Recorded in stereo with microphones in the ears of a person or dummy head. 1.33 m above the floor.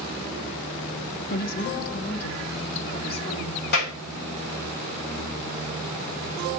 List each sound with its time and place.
1.3 s a woman speaking: 55° left (ahead or behind), 0.6 m; by 3.6 s 30° left (ahead or behind), 2 m
3.7 s a clap: 60° left (ahead or behind), 2.5 m